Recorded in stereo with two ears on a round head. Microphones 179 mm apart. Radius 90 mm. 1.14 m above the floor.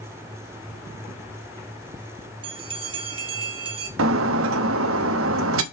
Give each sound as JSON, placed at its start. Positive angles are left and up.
{"t": 2.4, "sound": "a bell", "side_deg": -25, "distance_m": 1.4}
{"t": 4.0, "sound": "breaking glass", "side_deg": -75, "distance_m": 1.0}